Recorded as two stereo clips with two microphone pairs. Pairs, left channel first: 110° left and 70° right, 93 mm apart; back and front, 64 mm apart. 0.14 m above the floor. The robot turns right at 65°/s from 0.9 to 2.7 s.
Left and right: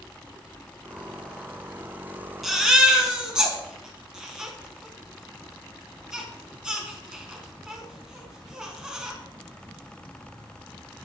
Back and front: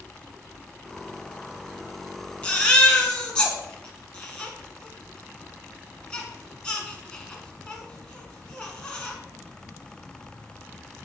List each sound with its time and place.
2.4 s a baby crying: 155° right, 1.2 m; by 9.1 s 140° right, 1.2 m